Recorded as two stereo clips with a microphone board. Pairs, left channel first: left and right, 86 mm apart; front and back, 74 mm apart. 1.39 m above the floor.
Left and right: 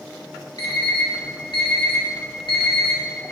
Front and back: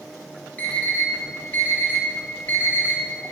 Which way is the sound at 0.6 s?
65° left.